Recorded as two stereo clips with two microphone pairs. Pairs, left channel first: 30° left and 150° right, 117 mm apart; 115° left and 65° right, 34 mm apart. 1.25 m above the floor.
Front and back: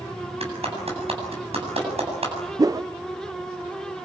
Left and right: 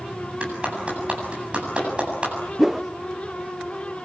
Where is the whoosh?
130° right, 0.5 m.